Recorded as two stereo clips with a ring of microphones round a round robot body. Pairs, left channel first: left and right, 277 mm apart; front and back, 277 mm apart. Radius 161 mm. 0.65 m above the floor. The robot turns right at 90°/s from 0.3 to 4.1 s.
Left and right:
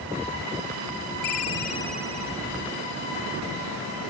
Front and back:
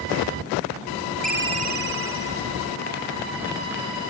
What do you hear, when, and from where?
1.2 s a ringtone: 115° left; by 2.4 s 140° right